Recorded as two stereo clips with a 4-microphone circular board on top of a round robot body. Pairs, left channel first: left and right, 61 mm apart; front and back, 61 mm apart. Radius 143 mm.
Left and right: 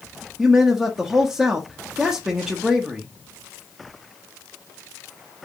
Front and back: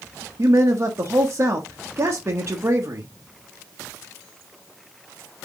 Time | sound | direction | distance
0.4 | a man speaking | 165° right | 1.1 m